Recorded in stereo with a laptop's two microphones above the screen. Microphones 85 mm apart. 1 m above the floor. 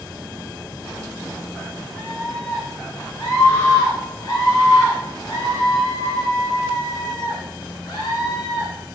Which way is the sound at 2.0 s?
20° left (ahead or behind).